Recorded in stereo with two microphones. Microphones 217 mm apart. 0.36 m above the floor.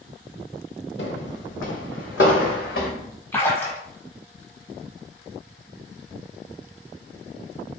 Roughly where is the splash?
Centre.